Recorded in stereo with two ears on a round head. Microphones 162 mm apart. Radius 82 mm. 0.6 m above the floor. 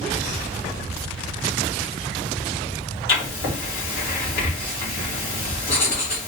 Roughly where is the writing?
Left.